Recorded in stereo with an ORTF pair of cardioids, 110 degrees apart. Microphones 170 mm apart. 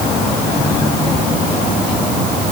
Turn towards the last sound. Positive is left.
No sound to turn to.